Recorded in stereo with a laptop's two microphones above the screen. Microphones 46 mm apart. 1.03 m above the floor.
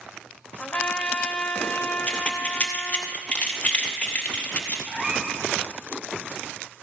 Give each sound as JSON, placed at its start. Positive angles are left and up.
{"t": 0.6, "sound": "a trumpet", "side_deg": 25, "distance_m": 1.2}
{"t": 2.1, "sound": "keys jangling", "side_deg": 30, "distance_m": 1.0}
{"t": 4.9, "sound": "a cat meowing", "side_deg": -20, "distance_m": 3.0}